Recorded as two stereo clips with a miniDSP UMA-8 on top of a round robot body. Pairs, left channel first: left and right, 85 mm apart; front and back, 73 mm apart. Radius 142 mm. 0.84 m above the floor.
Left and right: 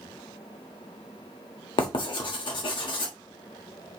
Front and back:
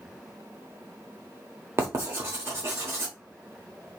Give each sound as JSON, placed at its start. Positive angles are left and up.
{"t": 1.8, "sound": "writing", "azimuth_deg": 120, "distance_m": 1.0}